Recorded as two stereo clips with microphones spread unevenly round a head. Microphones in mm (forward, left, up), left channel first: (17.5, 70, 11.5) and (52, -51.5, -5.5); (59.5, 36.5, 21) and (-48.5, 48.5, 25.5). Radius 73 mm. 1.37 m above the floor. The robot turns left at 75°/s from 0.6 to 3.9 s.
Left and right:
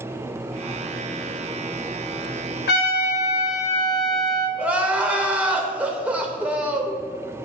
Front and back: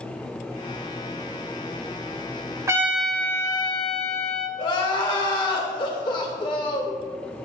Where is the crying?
10° left, 1.2 m.